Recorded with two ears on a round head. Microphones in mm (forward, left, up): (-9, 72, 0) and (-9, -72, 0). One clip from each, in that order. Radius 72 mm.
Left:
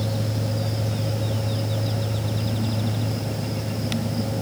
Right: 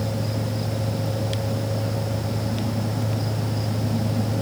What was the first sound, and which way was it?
Only background noise.